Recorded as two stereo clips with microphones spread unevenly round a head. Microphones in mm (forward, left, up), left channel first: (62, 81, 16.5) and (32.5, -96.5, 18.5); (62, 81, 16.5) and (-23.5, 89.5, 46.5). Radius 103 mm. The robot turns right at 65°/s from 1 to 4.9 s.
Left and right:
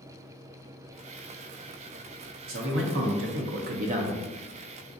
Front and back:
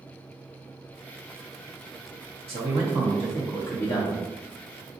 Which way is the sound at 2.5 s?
145° right.